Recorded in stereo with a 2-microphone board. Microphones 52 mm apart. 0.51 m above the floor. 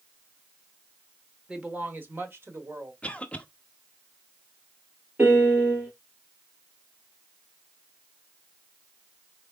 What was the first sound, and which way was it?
A woman speaking, 15° right (ahead or behind).